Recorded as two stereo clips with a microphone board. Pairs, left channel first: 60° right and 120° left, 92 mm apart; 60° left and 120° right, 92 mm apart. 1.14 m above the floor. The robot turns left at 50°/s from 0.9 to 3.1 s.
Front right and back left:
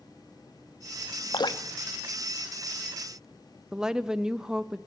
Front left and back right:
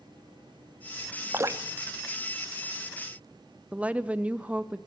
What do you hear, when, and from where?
1.3 s dripping: 70° right, 0.7 m; by 3.2 s 155° right, 0.7 m
3.7 s a woman speaking: 170° right, 0.5 m